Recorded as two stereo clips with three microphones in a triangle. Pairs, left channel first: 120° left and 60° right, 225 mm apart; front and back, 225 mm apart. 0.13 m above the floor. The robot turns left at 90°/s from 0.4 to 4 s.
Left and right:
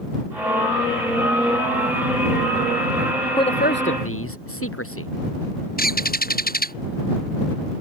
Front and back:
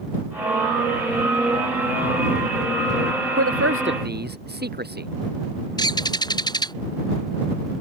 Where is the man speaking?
165° right; by 5.1 s 135° left.